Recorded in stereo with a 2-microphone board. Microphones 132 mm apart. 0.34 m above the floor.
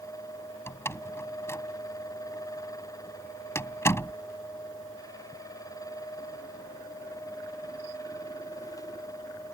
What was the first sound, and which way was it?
A door slam, 20° left (ahead or behind).